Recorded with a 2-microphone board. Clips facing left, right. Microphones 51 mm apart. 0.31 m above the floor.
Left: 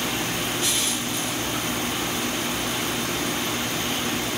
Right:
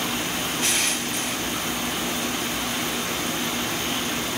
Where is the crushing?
60° right (ahead or behind), 0.8 m.